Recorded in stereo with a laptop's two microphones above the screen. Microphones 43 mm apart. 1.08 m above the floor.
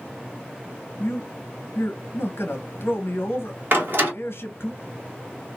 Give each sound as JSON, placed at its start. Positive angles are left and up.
{"t": 1.0, "sound": "a man speaking", "side_deg": 70, "distance_m": 0.8}
{"t": 3.7, "sound": "a door slam", "side_deg": -55, "distance_m": 1.1}